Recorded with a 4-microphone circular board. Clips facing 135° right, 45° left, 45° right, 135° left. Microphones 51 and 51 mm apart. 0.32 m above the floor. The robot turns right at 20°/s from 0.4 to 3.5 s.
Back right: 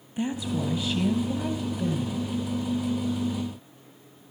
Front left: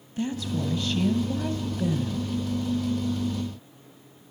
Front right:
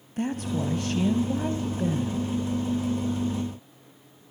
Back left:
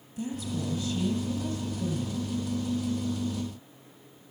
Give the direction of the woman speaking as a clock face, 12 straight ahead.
2 o'clock.